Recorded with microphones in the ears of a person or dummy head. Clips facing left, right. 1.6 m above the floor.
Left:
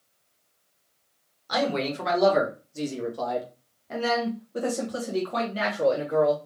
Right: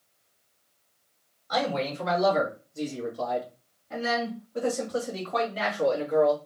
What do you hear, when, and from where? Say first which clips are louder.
1.5 s a man speaking: left 2 dB; 80° left, 2 m; by 6.4 s 30° left (ahead or behind), 2.5 m